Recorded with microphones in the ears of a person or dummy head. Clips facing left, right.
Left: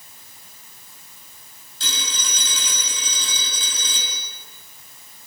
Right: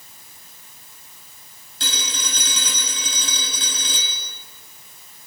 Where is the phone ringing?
50° right (ahead or behind), 5.5 m.